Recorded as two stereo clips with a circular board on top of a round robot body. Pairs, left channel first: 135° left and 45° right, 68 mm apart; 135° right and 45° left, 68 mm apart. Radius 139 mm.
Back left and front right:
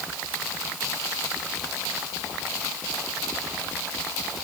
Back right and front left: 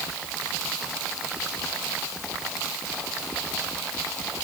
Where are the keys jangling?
I don't hear keys jangling.